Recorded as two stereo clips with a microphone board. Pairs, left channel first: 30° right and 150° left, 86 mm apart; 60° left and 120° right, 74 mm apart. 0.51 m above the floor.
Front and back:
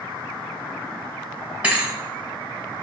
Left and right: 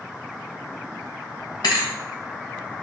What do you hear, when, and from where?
1.6 s a thud: 75° left, 0.9 m